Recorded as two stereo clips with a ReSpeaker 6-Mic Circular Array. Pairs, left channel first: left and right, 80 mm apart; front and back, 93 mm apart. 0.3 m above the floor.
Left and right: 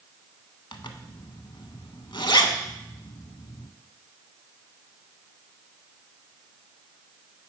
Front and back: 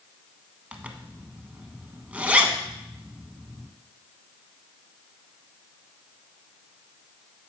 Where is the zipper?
105° left, 0.6 m.